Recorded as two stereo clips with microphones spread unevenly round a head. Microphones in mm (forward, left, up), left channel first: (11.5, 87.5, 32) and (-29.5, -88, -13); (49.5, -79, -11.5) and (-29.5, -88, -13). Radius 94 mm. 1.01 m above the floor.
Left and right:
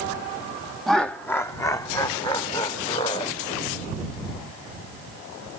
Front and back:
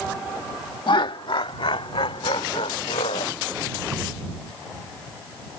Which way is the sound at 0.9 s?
15° right.